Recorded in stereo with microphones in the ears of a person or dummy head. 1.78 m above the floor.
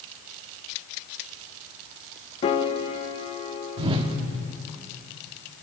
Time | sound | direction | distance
2.4 | a piano | 30° left (ahead or behind) | 1.6 m
3.8 | a whoosh | 30° right (ahead or behind) | 2 m